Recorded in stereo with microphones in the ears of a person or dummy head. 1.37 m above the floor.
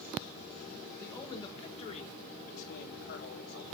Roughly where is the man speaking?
Centre.